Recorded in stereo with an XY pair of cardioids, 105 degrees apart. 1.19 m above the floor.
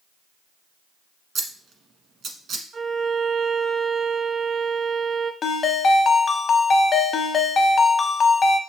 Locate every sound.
1.4 s scissors: 55° right, 1.1 m
2.7 s a violin: 60° right, 0.9 m
5.4 s a ringtone: 45° left, 0.6 m